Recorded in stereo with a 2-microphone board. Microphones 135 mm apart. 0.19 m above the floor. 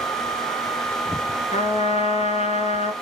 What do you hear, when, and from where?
1.5 s a trumpet: 55° left (ahead or behind), 1.4 m